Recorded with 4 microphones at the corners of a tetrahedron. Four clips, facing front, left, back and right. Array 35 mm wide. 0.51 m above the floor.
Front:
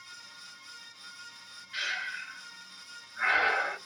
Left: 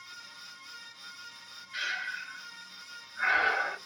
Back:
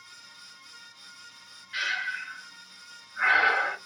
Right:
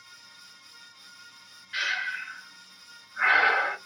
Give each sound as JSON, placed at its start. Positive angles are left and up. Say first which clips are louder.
{"t": 1.7, "sound": "breathing", "louder": "right 5 dB, back 4 dB", "azimuth_deg": -105, "distance_m": 1.0}